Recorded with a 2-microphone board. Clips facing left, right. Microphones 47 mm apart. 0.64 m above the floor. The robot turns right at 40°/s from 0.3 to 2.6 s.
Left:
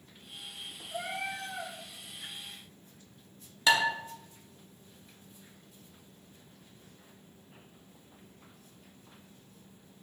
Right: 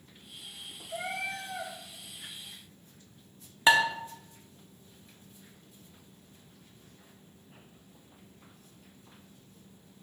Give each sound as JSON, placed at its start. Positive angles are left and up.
{"t": 0.9, "sound": "a cat meowing", "azimuth_deg": -115, "distance_m": 1.8}
{"t": 3.7, "sound": "dishes clattering", "side_deg": -30, "distance_m": 0.6}